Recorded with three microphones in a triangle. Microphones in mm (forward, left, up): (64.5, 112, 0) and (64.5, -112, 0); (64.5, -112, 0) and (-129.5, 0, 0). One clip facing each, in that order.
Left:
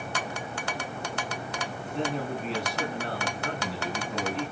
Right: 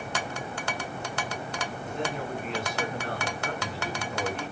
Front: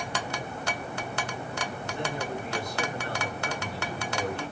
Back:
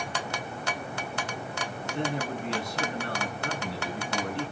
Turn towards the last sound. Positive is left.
turn(degrees=145)